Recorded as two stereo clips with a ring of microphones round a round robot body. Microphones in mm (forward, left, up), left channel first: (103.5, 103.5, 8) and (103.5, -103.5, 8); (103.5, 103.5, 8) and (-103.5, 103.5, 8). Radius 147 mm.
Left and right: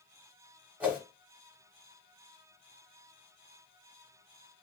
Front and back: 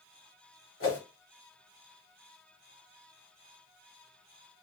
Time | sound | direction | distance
0.8 | a whoosh | 5° right | 1.4 m